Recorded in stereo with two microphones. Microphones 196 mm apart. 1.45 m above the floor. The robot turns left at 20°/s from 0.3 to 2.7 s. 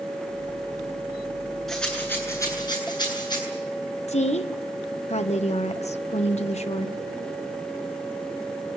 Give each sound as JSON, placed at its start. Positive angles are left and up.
{"t": 1.7, "sound": "a rattle", "side_deg": 0, "distance_m": 8.5}
{"t": 4.1, "sound": "a woman speaking", "side_deg": 35, "distance_m": 1.3}